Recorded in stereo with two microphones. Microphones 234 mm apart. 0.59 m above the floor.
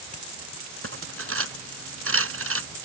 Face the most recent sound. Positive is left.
turn(degrees=-80)